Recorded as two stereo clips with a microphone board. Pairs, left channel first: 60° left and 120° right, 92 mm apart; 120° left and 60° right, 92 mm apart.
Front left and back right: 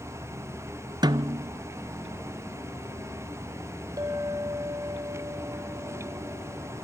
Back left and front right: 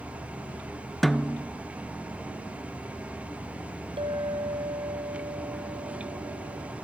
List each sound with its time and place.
1.0 s a snare drum: 155° right, 0.6 m
4.0 s a clink: 70° right, 2.5 m